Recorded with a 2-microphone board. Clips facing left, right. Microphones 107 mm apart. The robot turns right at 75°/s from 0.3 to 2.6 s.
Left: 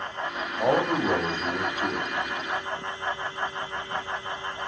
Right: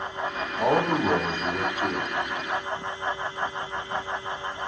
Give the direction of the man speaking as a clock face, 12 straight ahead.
4 o'clock.